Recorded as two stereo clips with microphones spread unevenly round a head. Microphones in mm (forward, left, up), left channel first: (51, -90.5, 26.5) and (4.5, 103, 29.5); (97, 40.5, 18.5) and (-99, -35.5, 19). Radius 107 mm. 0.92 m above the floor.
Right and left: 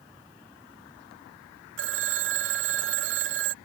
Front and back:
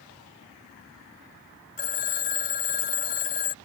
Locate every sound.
1.8 s a phone ringing: 75° left